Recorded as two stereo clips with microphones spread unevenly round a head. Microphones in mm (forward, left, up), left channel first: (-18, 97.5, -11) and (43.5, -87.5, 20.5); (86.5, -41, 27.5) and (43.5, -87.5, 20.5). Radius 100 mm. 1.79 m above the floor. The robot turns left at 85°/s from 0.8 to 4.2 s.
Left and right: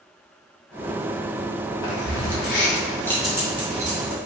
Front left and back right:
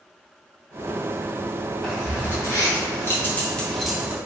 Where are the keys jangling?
130° left, 1.3 m; by 4.2 s 70° right, 1.3 m.